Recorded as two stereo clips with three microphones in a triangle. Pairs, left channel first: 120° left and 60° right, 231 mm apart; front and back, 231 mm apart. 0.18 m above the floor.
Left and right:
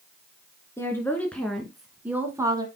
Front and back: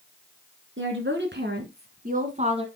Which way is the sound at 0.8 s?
165° right.